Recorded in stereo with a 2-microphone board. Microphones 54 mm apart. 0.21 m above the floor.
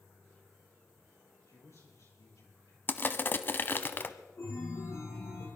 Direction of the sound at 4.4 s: 60° left (ahead or behind).